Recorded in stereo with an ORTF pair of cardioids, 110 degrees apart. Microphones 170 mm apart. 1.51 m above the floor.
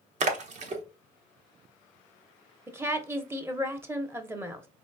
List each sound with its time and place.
0.2 s a splash: 45° right, 1.0 m
2.7 s a woman speaking: 15° right, 1.0 m